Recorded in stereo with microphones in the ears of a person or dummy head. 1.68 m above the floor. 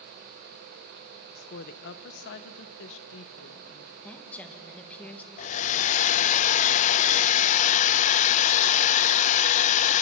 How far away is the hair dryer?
About 0.7 m.